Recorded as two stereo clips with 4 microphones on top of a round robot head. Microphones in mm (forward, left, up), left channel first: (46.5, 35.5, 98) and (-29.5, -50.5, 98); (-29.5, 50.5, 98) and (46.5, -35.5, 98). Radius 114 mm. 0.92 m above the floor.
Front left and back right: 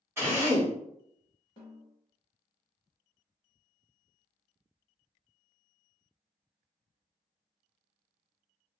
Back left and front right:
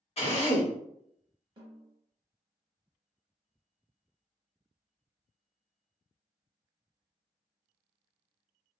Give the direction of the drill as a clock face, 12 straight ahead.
7 o'clock.